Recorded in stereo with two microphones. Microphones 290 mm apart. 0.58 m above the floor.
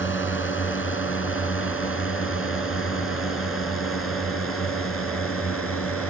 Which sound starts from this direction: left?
A drone, at 0.0 s.